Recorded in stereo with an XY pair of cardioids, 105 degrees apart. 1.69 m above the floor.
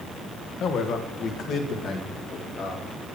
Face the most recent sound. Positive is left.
turn(degrees=70)